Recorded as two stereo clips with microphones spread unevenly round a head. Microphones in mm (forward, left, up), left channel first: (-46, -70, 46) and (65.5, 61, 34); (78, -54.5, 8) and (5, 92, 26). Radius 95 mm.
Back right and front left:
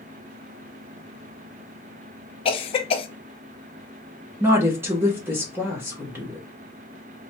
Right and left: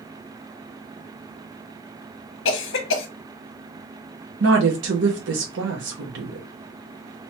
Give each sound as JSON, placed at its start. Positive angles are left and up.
{"t": 2.5, "sound": "a cough", "azimuth_deg": -75, "distance_m": 0.7}
{"t": 4.4, "sound": "a woman speaking", "azimuth_deg": 125, "distance_m": 1.0}